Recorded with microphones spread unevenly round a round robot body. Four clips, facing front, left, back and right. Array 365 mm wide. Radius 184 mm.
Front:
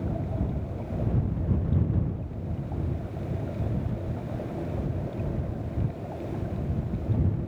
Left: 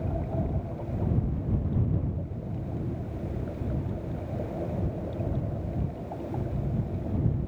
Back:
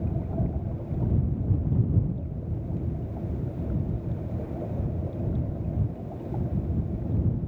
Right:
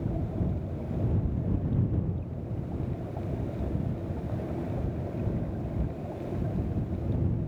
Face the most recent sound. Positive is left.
No sound to turn to.